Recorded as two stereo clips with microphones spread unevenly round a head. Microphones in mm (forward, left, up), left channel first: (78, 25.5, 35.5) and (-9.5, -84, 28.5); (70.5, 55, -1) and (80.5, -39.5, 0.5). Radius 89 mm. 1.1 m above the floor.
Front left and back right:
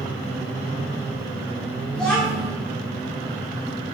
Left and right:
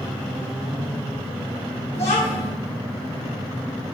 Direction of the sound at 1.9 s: 135° left.